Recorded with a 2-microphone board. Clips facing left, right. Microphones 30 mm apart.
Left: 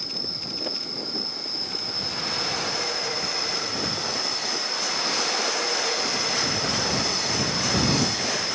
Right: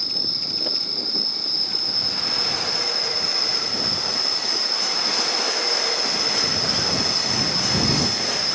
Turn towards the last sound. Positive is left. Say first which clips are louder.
# right 6 dB
turn(degrees=-60)  # may be behind; listen again after turning